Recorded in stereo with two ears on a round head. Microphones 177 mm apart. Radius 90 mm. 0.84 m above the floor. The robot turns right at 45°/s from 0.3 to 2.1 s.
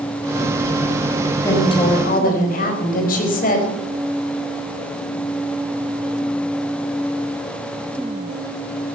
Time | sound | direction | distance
1.4 | a woman speaking | 15° left (ahead or behind) | 4.5 m